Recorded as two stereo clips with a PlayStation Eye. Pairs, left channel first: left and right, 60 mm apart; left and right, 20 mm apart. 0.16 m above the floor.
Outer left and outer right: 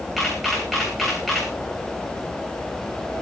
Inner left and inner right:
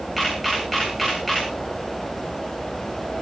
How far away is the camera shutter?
About 9.5 m.